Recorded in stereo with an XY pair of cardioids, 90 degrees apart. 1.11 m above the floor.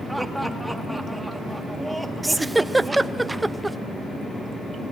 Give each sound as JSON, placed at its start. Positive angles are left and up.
{"t": 0.1, "sound": "laughter", "azimuth_deg": -5, "distance_m": 2.0}
{"t": 2.2, "sound": "a giggle", "azimuth_deg": -15, "distance_m": 0.5}